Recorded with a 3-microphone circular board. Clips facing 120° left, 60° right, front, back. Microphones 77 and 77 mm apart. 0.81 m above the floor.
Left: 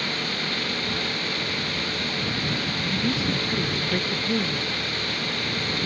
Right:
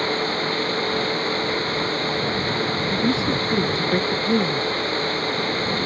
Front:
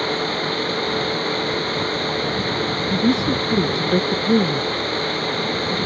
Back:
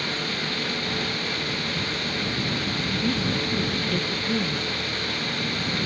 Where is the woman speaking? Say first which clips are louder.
Right 3 dB, front 8 dB; 5° left.